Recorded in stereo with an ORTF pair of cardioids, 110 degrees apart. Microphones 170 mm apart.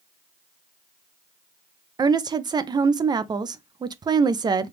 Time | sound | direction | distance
2.0 | a woman speaking | 25° right | 0.5 m